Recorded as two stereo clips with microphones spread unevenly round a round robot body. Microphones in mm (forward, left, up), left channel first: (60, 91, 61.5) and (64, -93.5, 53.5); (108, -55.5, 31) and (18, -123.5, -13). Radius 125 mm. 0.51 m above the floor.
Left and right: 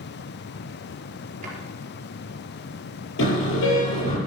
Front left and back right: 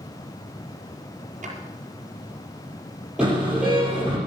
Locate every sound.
1.4 s a drawer: 150° right, 5 m
3.2 s a car horn: 130° left, 6.5 m